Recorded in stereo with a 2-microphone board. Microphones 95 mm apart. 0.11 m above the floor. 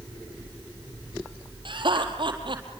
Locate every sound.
1.6 s laughter: 55° right (ahead or behind), 4 m